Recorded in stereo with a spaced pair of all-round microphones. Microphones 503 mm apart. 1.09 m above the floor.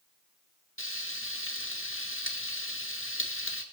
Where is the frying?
25° left (ahead or behind), 1.9 m.